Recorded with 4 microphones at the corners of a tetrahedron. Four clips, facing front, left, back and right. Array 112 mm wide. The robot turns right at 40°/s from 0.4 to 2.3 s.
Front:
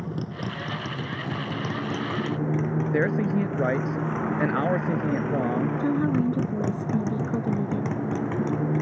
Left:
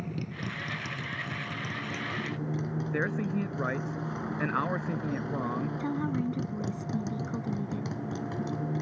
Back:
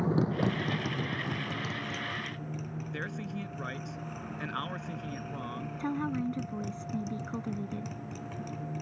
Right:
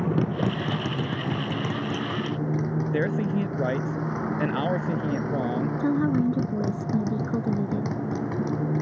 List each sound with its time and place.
0.0 s a motorcycle: 105° right; by 8.8 s 30° right
2.9 s a man speaking: 25° right
5.8 s a woman speaking: 50° right